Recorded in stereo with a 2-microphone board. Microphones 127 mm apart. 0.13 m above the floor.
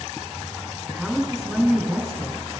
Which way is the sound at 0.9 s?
Centre (ahead or behind).